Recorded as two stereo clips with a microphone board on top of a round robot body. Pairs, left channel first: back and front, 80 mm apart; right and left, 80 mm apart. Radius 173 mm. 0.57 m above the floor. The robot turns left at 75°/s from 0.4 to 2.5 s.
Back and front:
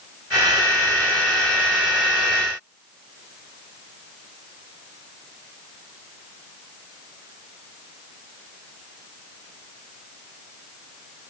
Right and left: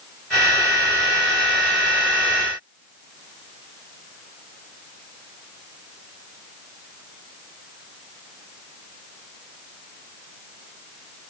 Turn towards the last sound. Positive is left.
No sound to turn to.